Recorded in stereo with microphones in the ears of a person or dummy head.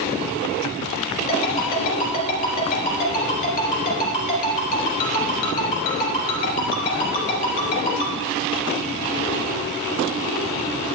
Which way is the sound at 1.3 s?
50° left (ahead or behind).